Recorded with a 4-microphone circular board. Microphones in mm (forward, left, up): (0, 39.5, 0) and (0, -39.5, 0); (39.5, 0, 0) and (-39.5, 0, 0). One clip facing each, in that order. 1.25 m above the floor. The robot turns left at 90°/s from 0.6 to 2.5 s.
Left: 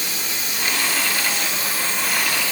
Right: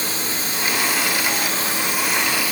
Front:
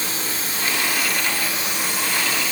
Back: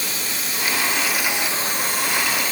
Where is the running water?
45° right, 1.5 m; by 2.5 s 140° left, 1.5 m.